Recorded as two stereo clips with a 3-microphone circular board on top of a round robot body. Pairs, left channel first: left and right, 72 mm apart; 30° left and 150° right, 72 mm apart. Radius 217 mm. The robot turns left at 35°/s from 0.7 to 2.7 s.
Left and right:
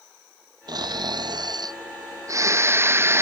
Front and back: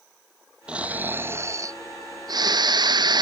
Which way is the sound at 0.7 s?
75° right.